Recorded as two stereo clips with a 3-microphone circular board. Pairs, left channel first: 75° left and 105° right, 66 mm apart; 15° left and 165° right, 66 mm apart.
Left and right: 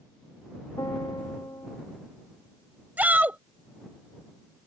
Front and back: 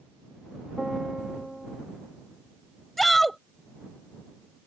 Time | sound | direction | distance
0.8 | a piano | 105° left | ?
3.0 | a shout | 70° right | ?